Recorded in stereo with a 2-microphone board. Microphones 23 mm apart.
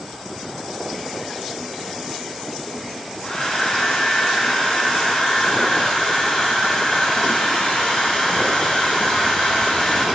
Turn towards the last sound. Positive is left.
turn(degrees=50)  # may be behind; listen again after turning